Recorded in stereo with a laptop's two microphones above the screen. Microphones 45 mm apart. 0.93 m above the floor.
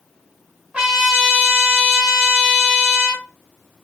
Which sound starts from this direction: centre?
A trumpet, at 0.7 s.